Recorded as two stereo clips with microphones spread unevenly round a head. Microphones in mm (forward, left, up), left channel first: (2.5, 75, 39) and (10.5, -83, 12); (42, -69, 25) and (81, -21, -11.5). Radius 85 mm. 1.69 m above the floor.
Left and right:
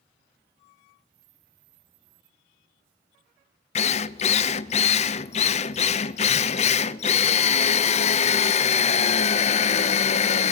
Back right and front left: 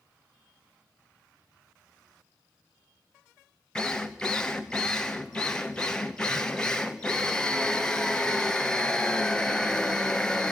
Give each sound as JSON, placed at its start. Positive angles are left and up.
{"t": 3.8, "sound": "a drill", "azimuth_deg": 145, "distance_m": 0.7}